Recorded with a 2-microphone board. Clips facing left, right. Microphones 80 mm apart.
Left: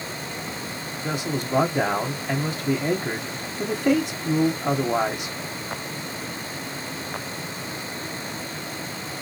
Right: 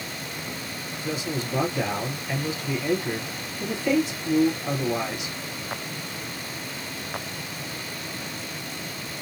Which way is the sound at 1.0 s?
45° left (ahead or behind).